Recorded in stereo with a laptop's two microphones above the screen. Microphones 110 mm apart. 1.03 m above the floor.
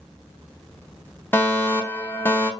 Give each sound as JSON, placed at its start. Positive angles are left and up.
{"t": 1.3, "sound": "a fire alarm", "side_deg": 20, "distance_m": 1.0}